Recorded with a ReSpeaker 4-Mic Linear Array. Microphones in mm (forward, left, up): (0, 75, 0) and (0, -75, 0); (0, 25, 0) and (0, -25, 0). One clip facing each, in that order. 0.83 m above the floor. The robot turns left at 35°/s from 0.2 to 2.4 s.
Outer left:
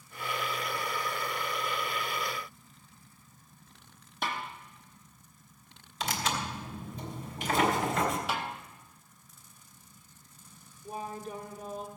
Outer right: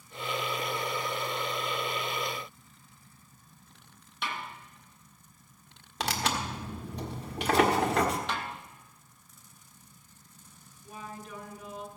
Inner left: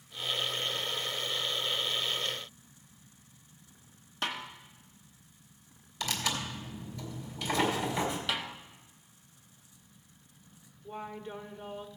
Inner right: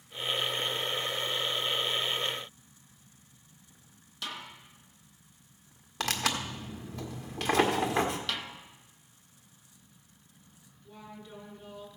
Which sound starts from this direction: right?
Tearing paper, at 6.0 s.